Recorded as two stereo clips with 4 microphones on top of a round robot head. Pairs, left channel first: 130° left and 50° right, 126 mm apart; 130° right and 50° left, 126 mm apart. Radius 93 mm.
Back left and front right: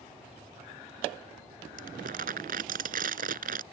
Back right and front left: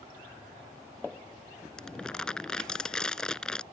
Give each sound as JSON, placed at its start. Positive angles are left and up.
{"t": 1.8, "sound": "crumpling", "azimuth_deg": -45}